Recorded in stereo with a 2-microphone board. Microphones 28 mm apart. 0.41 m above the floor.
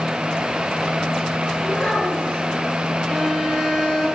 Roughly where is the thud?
No thud in this recording.